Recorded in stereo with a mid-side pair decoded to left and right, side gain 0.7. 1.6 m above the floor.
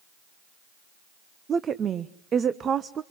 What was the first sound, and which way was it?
A woman speaking, 35° right.